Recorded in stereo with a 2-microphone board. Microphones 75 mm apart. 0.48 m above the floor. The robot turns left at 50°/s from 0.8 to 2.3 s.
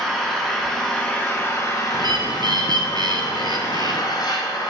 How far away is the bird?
About 1.4 m.